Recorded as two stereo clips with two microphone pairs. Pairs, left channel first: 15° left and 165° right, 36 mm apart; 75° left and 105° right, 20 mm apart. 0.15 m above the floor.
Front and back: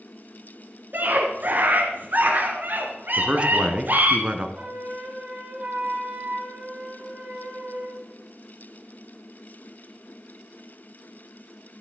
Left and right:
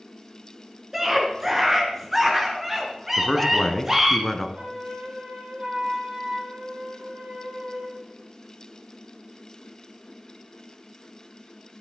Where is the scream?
175° right, 1.8 m.